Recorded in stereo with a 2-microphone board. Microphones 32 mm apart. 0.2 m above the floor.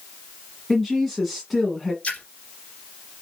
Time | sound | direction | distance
0.7 | a woman speaking | 5° left (ahead or behind) | 1.5 m
2.0 | a splash | 45° left (ahead or behind) | 2 m